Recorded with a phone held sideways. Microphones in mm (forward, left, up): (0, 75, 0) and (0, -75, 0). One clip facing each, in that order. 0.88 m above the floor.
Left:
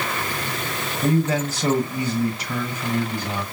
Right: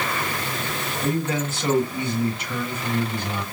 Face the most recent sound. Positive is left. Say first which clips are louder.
# left 4 dB
turn(degrees=35)  # may be behind; listen again after turning